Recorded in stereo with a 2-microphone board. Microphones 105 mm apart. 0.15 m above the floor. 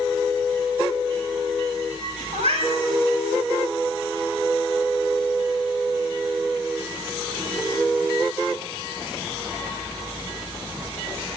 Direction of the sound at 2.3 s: 70° right (ahead or behind).